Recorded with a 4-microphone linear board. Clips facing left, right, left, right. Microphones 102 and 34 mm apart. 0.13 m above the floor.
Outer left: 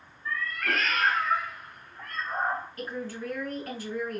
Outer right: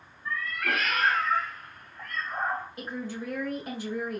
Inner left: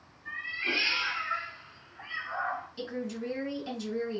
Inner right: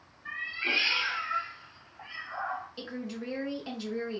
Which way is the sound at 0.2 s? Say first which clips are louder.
Even, inner right 1 dB; 30° right (ahead or behind).